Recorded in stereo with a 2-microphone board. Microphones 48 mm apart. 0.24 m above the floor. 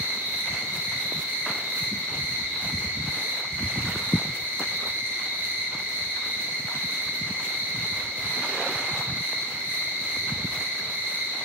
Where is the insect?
75° right (ahead or behind), 0.9 m.